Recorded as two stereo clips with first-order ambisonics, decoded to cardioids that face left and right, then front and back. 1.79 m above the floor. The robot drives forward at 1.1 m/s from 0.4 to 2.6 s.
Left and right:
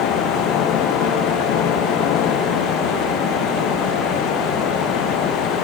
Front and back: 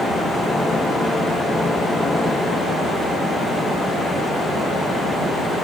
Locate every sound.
Only background noise.